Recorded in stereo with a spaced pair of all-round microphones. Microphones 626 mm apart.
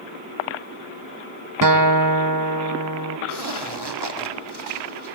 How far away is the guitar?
About 1.0 m.